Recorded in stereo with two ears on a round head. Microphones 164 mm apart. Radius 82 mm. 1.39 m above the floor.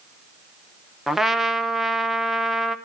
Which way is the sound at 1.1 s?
Centre (ahead or behind).